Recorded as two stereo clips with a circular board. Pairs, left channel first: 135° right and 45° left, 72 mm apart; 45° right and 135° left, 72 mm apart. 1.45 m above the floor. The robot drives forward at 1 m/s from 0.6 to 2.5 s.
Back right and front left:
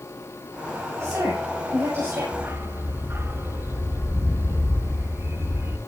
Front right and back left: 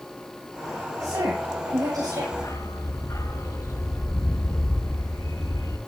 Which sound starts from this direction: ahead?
A dog barking, at 2.3 s.